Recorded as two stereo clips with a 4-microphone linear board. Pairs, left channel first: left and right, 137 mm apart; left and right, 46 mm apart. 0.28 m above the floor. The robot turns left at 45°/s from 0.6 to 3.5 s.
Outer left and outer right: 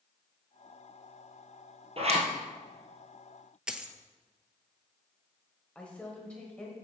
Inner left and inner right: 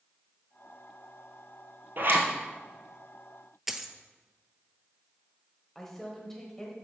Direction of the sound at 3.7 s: 5° right (ahead or behind).